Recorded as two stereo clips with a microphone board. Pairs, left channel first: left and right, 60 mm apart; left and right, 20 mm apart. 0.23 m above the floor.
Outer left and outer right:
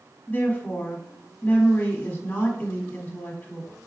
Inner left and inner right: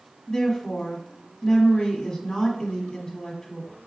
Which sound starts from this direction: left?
A woman speaking, at 0.3 s.